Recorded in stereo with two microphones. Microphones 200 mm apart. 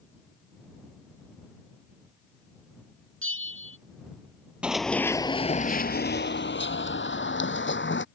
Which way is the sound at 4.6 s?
5° right (ahead or behind).